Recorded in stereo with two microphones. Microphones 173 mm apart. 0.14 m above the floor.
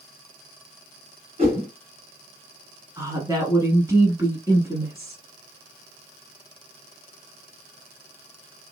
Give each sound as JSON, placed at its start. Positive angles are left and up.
{"t": 1.4, "sound": "a whoosh", "side_deg": -35, "distance_m": 1.9}
{"t": 3.0, "sound": "a woman speaking", "side_deg": -20, "distance_m": 1.1}